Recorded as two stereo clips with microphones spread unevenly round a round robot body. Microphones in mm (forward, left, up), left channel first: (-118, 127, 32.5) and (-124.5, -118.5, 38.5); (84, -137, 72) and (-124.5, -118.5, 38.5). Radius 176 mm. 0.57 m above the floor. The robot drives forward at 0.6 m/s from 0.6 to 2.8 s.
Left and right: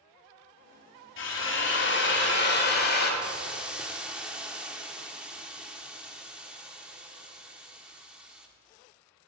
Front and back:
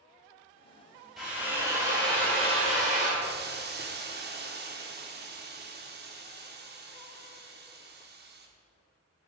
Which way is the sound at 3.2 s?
Straight behind.